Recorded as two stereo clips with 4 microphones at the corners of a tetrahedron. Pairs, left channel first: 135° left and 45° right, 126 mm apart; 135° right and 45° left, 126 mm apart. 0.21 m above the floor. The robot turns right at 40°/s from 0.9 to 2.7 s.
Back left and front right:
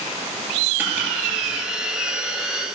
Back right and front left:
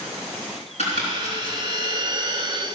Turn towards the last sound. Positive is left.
turn(degrees=-45)